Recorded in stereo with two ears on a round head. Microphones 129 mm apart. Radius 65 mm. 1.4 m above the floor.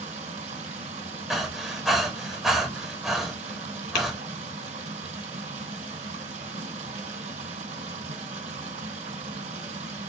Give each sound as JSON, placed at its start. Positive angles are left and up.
{"t": 0.0, "sound": "running water", "side_deg": -50, "distance_m": 2.5}
{"t": 1.3, "sound": "breathing", "side_deg": 0, "distance_m": 1.3}
{"t": 4.0, "sound": "tapping", "side_deg": 65, "distance_m": 2.5}